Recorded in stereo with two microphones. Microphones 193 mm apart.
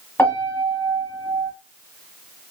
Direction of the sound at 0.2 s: 10° left (ahead or behind).